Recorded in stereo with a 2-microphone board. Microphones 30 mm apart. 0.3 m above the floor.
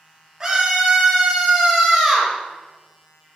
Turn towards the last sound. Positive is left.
turn(degrees=10)  # may be behind; listen again after turning